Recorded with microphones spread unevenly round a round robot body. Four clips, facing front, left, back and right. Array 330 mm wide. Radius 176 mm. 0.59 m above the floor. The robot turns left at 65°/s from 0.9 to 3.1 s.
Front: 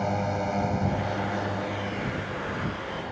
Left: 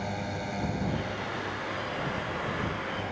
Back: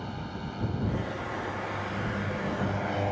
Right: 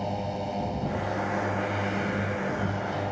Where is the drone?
10° right; by 3.1 s 155° right.